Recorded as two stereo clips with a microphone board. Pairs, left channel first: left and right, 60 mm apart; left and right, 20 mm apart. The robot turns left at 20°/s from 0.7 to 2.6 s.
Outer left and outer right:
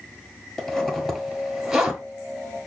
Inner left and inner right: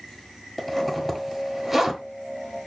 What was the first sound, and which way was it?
A zipper, 5° left (ahead or behind).